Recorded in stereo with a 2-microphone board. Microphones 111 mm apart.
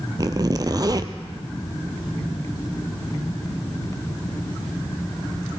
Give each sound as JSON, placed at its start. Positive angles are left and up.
{"t": 0.2, "sound": "a zipper", "side_deg": -35, "distance_m": 0.7}